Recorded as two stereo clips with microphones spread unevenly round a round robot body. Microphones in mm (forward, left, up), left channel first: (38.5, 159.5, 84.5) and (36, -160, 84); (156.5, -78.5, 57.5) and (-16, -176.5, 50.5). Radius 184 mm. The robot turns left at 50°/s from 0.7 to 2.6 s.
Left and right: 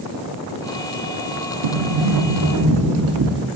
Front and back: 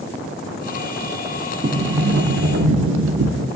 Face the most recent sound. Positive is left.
turn(degrees=-140)